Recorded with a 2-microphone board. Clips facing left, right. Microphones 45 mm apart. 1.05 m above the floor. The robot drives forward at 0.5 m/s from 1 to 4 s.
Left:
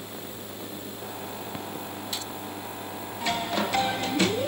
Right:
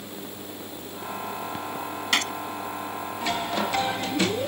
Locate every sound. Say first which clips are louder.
2.1 s a gunshot: right 16 dB; 60° right (ahead or behind)